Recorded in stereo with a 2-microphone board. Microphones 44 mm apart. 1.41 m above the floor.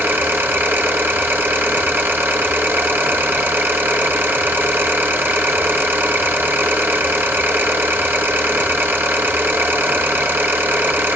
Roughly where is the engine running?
Right.